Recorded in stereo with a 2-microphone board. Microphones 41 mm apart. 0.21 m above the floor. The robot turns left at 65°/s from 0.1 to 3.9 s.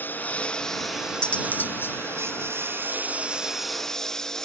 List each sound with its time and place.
0.0 s a lawn mower: 50° left (ahead or behind); by 4.5 s 10° left (ahead or behind)
1.2 s cutlery clinking: 155° left; by 2.0 s 105° left